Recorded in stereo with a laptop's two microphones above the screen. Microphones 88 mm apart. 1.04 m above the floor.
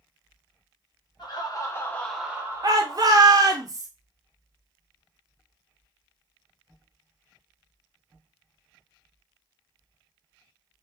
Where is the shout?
45° right (ahead or behind), 0.6 m.